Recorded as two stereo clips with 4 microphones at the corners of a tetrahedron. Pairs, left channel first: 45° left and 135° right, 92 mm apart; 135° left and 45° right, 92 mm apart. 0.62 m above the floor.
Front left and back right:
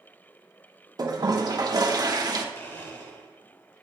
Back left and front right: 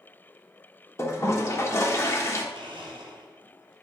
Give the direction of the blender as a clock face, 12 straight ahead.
1 o'clock.